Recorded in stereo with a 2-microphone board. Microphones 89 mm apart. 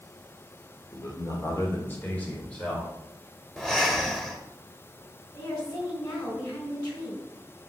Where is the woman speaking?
45° left (ahead or behind), 4 m.